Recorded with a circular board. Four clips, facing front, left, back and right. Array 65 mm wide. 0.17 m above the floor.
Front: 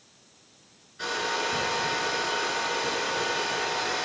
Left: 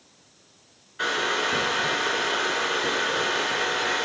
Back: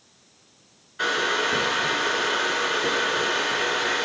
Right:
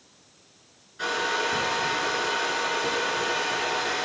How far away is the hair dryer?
About 1.1 m.